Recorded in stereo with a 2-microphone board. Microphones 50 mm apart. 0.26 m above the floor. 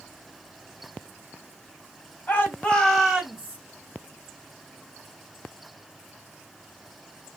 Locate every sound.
2.3 s a shout: 40° left (ahead or behind), 1.2 m; by 3.6 s 25° right (ahead or behind), 1.3 m